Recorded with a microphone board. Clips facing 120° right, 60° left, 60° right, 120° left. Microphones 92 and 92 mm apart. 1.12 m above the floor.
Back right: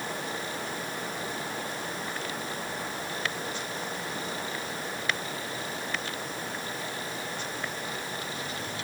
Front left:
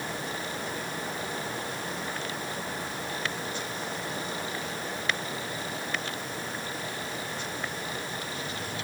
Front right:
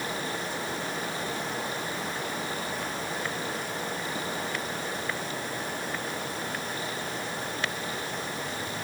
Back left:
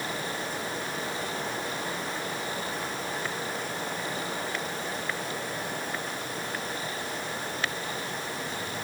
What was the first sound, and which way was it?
Only background noise.